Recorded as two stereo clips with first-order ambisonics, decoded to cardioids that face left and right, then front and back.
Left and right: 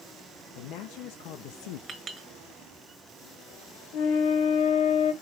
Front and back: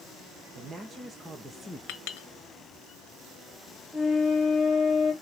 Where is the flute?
90° left, 2.5 m.